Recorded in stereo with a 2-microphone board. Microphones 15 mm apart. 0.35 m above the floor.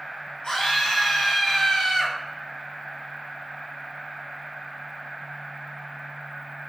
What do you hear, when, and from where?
0.4 s a scream: 60° left (ahead or behind), 1.6 m